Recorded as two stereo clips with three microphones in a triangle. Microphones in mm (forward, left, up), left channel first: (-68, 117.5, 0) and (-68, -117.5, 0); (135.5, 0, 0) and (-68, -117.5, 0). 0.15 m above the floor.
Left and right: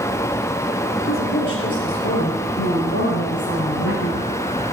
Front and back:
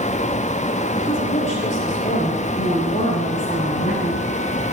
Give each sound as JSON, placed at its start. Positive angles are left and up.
{"t": 1.0, "sound": "a woman speaking", "azimuth_deg": 85, "distance_m": 3.0}